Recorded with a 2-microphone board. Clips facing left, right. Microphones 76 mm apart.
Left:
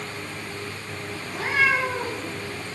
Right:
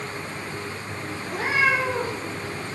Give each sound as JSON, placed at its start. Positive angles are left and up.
{"t": 1.2, "sound": "a cat meowing", "side_deg": -75, "distance_m": 1.9}